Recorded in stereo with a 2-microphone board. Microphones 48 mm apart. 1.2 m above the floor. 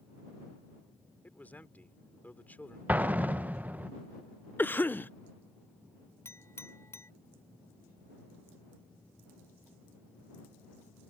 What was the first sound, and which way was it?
A man speaking, 35° left (ahead or behind).